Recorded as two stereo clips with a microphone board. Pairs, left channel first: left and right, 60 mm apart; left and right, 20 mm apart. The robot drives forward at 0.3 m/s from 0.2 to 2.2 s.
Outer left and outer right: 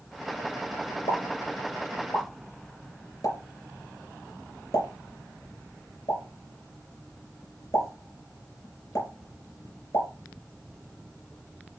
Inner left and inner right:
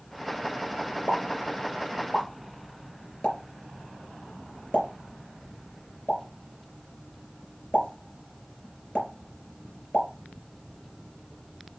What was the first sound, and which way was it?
A pop, 70° left (ahead or behind).